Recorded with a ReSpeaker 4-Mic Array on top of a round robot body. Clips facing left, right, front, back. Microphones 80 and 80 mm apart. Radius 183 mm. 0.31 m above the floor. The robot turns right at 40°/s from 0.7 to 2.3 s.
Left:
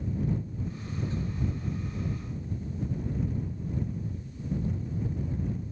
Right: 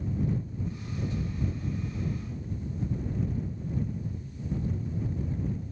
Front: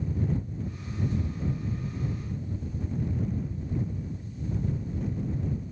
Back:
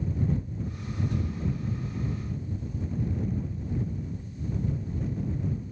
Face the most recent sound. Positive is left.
No sound to turn to.